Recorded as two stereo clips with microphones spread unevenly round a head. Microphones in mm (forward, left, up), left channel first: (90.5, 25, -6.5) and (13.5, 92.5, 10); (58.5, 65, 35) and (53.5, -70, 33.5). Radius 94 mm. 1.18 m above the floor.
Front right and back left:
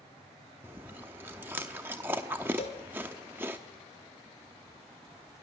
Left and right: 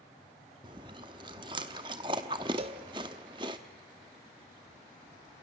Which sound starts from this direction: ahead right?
A cowbell, at 2.6 s.